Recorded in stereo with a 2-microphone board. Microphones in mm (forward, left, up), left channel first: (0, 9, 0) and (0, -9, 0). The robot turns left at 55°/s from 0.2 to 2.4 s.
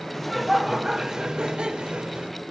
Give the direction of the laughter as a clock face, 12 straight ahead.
12 o'clock.